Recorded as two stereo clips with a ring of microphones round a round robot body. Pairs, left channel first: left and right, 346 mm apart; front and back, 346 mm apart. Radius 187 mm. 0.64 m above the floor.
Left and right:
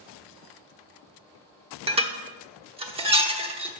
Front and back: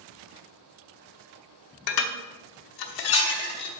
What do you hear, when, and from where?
1.9 s dishes clattering: 15° right, 1.0 m